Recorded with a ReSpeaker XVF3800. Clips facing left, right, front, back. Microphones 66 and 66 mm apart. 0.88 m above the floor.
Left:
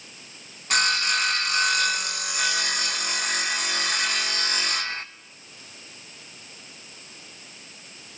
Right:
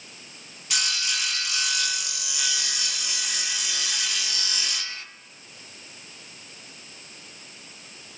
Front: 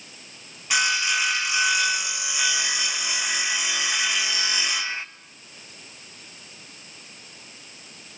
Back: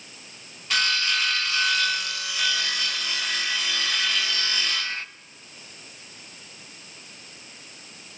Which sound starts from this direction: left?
Sawing, at 0.7 s.